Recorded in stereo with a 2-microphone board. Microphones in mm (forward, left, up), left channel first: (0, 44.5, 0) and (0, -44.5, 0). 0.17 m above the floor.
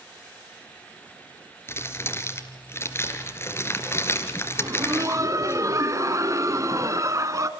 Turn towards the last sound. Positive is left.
turn(degrees=-40)  # may be behind; listen again after turning